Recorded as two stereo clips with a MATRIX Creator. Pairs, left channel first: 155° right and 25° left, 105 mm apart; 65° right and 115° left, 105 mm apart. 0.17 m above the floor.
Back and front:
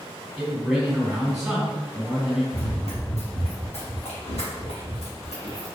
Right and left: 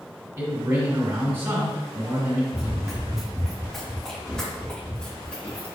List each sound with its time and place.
0.4 s a man speaking: 105° left, 1.8 m
2.5 s running footsteps: 170° right, 1.5 m; by 5.7 s 145° right, 3 m